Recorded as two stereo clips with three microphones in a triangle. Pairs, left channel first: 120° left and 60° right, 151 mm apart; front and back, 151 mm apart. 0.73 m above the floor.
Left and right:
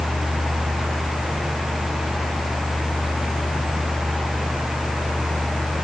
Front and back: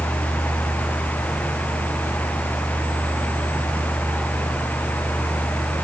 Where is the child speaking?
No child speaking in this recording.